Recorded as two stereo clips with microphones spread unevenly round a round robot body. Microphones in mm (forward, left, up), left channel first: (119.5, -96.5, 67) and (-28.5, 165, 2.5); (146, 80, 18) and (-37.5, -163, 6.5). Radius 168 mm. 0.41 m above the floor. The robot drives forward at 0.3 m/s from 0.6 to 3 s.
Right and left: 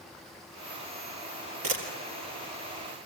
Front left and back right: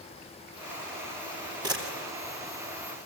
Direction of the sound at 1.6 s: 155° left.